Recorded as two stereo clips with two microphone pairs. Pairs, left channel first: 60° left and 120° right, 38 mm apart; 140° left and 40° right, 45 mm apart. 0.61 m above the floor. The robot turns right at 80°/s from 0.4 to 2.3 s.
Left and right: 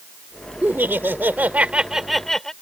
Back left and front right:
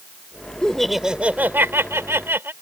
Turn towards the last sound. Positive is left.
turn(degrees=-20)